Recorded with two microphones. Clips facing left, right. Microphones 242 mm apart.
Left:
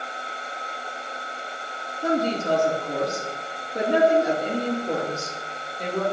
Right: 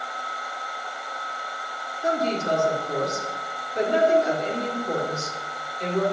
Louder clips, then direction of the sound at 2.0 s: Left 2 dB; 60° left (ahead or behind).